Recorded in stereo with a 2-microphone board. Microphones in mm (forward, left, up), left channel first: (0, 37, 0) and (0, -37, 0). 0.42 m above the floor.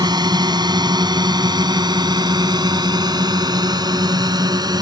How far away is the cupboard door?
I don't hear a cupboard door.